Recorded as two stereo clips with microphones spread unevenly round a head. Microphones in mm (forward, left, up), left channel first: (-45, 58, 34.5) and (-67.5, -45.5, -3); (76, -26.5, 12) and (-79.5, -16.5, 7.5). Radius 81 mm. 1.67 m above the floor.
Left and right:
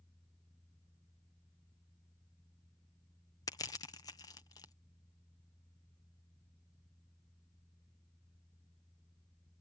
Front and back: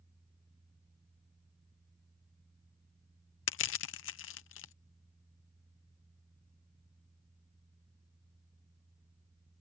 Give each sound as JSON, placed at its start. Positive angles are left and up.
{"t": 3.5, "sound": "crushing", "azimuth_deg": 10}